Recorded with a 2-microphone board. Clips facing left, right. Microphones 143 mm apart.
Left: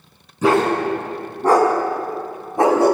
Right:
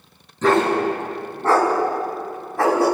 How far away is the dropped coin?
I don't hear a dropped coin.